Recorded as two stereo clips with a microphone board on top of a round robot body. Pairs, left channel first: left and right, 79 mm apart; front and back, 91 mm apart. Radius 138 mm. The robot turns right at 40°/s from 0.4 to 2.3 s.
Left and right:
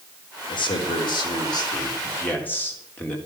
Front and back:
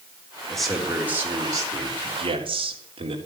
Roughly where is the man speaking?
Left.